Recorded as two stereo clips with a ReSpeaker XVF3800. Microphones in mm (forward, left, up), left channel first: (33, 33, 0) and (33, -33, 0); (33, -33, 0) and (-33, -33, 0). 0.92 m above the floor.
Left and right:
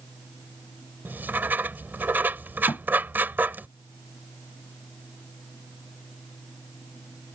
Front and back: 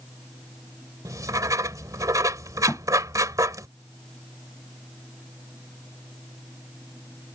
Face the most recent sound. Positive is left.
turn(degrees=55)